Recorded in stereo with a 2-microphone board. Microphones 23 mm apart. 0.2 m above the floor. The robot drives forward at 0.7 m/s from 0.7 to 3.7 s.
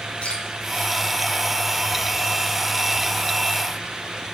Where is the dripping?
60° left (ahead or behind), 3.5 m.